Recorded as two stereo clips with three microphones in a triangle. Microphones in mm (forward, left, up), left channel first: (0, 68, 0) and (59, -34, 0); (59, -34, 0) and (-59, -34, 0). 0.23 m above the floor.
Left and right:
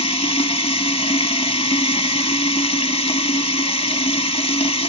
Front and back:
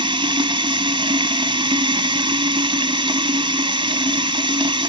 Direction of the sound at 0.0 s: 145° left.